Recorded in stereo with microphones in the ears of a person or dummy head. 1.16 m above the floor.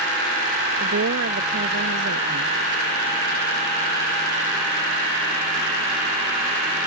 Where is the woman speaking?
65° right (ahead or behind).